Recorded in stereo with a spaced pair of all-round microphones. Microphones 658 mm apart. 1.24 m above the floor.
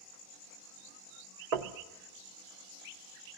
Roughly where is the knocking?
Right.